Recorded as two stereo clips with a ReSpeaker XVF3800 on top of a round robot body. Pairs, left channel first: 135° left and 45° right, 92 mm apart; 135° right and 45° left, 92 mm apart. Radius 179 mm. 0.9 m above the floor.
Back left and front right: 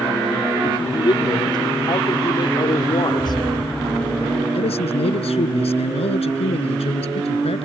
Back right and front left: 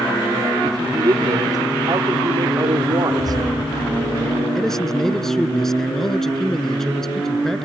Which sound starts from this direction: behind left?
A man speaking, at 4.5 s.